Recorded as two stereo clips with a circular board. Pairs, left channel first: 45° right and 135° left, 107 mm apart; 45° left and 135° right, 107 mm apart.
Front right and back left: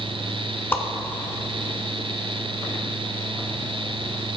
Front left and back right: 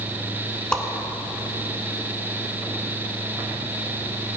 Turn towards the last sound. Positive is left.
turn(degrees=-20)